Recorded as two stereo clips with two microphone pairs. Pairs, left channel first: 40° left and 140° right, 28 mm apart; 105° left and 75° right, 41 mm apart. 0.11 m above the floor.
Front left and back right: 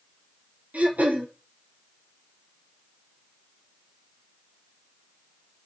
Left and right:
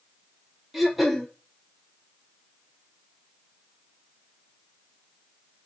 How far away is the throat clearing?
About 0.7 m.